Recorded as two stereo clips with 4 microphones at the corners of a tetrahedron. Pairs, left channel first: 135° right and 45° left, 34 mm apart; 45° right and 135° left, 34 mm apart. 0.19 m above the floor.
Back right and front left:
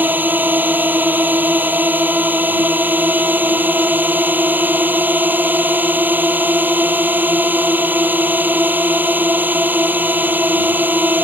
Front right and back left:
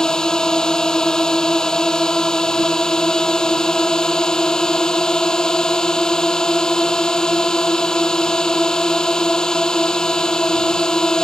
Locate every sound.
0.0 s a drone: 25° left